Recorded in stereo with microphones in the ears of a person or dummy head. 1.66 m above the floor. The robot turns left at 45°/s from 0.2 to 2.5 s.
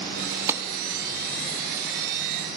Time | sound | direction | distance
0.5 | a clap | 15° right (ahead or behind) | 0.7 m